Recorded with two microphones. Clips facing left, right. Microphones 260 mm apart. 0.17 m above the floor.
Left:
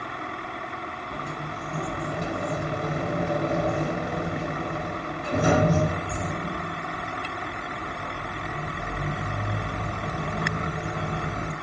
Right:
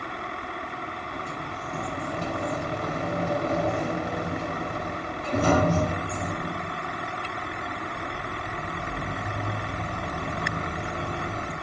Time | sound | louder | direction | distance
1.1 | a sliding door | left 3 dB | 15° left (ahead or behind) | 1.4 m